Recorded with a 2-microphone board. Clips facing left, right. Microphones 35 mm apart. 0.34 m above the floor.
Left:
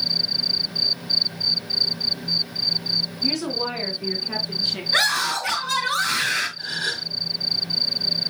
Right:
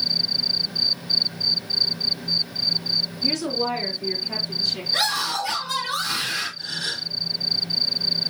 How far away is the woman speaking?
About 3 m.